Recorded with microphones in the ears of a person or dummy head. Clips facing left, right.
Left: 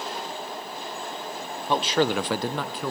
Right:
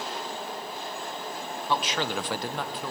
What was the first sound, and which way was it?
A man speaking, 15° left (ahead or behind).